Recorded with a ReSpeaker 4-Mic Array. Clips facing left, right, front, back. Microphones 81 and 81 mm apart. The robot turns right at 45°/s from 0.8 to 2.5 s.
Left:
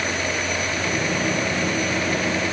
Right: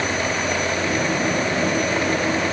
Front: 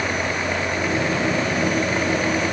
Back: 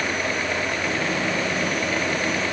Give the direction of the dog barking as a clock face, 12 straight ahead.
I don't hear a dog barking.